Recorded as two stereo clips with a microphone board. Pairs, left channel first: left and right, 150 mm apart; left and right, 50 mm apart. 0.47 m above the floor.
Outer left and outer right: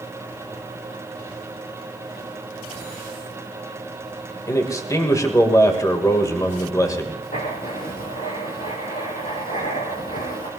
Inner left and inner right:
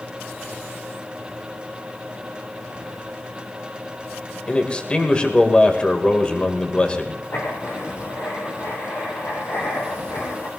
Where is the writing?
75° left (ahead or behind), 4 m.